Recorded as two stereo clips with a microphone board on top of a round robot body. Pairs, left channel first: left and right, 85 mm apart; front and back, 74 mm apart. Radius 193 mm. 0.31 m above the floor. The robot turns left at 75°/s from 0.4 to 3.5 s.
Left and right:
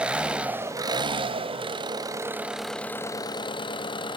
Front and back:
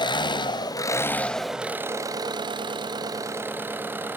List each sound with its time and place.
0.0 s an engine running: 10° right, 0.8 m; by 4.2 s 115° left, 0.8 m